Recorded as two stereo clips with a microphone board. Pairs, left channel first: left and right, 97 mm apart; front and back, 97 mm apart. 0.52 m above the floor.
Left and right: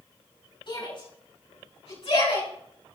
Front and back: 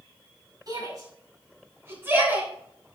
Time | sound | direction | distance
0.7 | a shout | 130° left | 6.5 m